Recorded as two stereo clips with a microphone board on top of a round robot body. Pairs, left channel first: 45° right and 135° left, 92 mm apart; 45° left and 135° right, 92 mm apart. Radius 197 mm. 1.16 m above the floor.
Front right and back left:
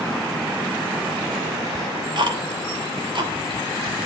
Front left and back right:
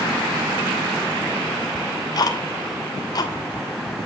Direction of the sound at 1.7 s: 95° left.